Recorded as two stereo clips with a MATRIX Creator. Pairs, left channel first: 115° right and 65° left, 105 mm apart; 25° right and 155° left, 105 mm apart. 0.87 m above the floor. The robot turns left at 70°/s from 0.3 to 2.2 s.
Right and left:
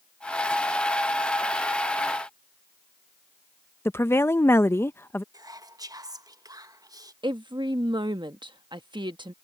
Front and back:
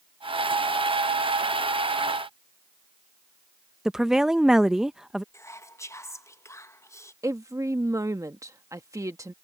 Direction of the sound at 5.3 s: 30° left.